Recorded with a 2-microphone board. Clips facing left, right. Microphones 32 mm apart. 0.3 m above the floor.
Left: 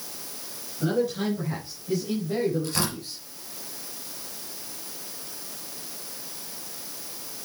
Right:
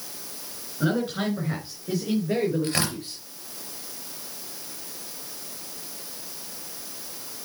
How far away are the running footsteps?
No running footsteps in this recording.